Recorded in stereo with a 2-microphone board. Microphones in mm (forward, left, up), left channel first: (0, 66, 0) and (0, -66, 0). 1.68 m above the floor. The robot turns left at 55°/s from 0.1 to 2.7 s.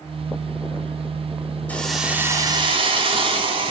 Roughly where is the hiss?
Ahead.